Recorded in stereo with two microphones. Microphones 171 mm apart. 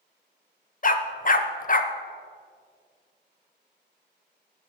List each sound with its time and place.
0.8 s a dog barking: 45° left (ahead or behind), 0.5 m